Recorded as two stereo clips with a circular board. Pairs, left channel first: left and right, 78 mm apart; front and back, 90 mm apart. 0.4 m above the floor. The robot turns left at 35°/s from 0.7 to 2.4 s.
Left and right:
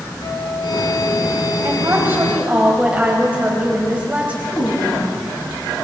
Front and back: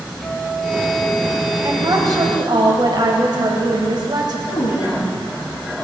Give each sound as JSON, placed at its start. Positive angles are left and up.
{"t": 0.2, "sound": "a guitar", "azimuth_deg": 85, "distance_m": 2.5}
{"t": 1.6, "sound": "a woman speaking", "azimuth_deg": -135, "distance_m": 2.5}
{"t": 4.5, "sound": "a woman speaking", "azimuth_deg": 30, "distance_m": 4.5}